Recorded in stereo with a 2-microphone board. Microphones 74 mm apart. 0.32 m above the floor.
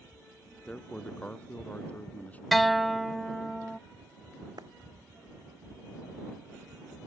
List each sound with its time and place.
0.7 s a man speaking: 15° left (ahead or behind); by 2.4 s 20° left (ahead or behind)
2.5 s a guitar: centre (ahead or behind)
4.6 s a clap: 65° right (ahead or behind)